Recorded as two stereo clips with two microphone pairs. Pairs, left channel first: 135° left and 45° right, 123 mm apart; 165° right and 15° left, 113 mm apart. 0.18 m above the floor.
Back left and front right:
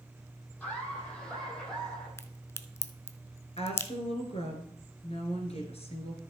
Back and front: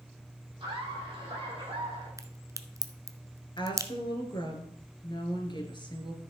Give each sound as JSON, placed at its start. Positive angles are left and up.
{"t": 0.6, "sound": "laughter", "azimuth_deg": 60, "distance_m": 5.0}
{"t": 2.2, "sound": "a crack", "azimuth_deg": 75, "distance_m": 0.6}
{"t": 3.6, "sound": "a woman speaking", "azimuth_deg": 155, "distance_m": 2.5}